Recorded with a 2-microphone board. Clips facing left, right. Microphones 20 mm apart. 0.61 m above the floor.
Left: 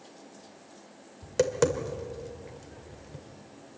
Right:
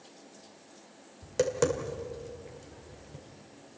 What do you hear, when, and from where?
1.2 s tapping: 15° left (ahead or behind), 1.9 m